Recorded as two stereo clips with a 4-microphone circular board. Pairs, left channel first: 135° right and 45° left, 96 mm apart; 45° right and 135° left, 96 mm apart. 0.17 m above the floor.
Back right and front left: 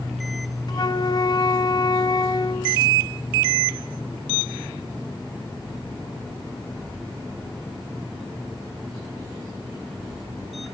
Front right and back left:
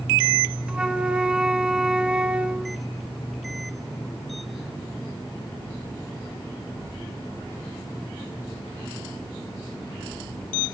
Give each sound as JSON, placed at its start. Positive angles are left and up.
{"t": 0.7, "sound": "a flute", "azimuth_deg": -150, "distance_m": 0.7}